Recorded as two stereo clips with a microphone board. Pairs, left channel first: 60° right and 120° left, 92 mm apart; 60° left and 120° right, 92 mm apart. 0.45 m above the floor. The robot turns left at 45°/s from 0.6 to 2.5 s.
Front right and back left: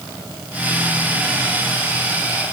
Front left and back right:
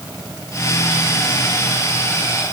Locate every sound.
Only background noise.